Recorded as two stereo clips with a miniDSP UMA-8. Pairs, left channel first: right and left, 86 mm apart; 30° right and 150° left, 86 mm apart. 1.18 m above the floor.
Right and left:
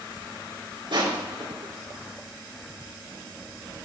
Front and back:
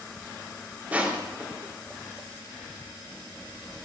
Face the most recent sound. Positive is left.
turn(degrees=80)